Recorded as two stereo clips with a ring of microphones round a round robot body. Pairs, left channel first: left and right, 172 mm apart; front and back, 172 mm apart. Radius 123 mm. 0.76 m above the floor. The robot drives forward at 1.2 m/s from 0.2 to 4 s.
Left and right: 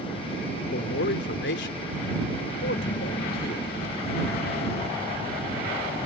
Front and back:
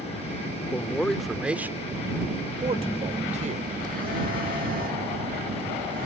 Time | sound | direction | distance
0.7 | a man speaking | 75° left | ?
2.6 | a phone buzzing | 60° left | ?